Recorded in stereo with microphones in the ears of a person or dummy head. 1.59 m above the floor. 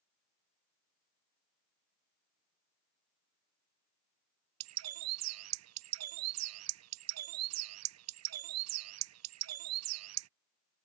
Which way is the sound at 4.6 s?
80° right.